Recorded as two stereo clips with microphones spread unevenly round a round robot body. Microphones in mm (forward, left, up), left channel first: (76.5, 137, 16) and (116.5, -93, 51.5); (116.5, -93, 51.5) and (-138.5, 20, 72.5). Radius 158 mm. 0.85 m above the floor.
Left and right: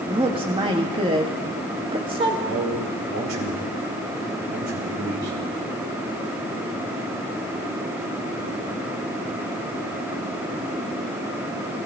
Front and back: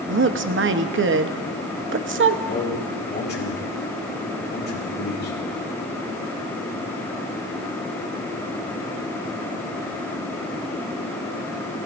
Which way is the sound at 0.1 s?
155° right.